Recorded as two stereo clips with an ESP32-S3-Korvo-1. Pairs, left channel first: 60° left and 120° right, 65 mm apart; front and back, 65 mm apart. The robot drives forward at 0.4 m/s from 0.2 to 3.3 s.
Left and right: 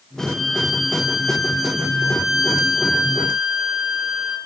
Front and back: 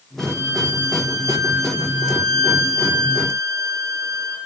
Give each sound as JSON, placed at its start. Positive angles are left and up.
{"t": 0.2, "sound": "a violin", "azimuth_deg": 150, "distance_m": 2.5}